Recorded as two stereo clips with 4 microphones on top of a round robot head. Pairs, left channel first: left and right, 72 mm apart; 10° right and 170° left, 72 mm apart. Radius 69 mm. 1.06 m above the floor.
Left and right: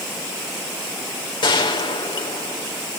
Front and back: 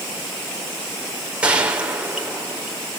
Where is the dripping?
I don't hear dripping.